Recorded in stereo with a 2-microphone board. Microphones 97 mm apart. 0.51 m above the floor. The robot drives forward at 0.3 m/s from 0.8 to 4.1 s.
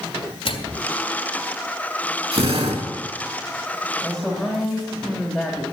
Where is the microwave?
70° left (ahead or behind), 2.5 m.